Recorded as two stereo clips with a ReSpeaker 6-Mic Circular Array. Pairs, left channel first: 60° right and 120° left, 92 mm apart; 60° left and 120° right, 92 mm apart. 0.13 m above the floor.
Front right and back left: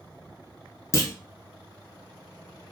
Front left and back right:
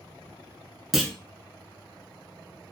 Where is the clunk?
35° right, 0.5 m.